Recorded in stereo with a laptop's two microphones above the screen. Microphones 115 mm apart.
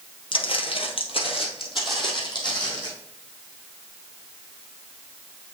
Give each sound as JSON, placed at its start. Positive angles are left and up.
{"t": 0.3, "sound": "footsteps", "side_deg": 50, "distance_m": 1.5}